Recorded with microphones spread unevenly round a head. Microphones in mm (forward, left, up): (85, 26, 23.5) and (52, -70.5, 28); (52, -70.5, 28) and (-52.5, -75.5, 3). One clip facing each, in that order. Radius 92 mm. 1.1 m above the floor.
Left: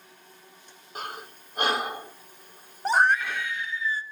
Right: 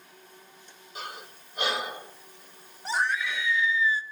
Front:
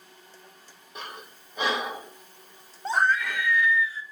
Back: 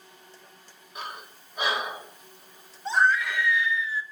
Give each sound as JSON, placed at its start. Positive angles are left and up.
{"t": 0.9, "sound": "breathing", "azimuth_deg": 30, "distance_m": 2.5}
{"t": 2.9, "sound": "a scream", "azimuth_deg": 60, "distance_m": 0.6}